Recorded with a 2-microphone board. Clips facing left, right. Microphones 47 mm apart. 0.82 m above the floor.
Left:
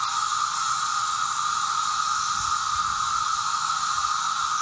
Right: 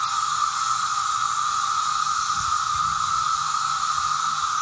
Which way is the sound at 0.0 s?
10° right (ahead or behind).